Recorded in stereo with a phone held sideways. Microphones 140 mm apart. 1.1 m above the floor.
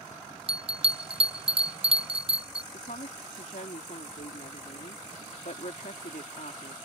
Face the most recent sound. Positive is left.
turn(degrees=80)